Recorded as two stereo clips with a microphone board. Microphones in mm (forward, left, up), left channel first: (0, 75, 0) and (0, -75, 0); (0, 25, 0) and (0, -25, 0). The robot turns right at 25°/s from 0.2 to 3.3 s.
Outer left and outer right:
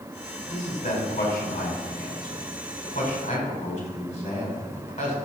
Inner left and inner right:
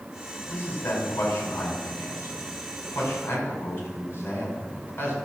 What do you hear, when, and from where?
0.5 s a man speaking: 60° left (ahead or behind), 3.5 m; by 5.2 s 45° left (ahead or behind), 3.5 m